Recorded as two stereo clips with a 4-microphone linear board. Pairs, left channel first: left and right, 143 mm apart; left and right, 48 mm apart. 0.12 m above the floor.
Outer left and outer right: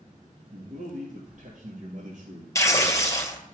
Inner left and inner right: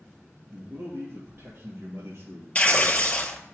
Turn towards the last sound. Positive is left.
turn(degrees=25)  # may be behind; listen again after turning